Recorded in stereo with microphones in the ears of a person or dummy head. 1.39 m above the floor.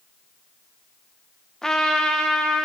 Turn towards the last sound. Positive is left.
turn(degrees=5)  # may be behind; listen again after turning